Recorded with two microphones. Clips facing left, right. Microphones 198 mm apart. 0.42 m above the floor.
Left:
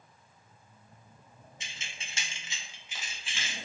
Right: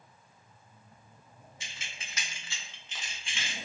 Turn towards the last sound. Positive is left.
turn(degrees=0)  # may be behind; listen again after turning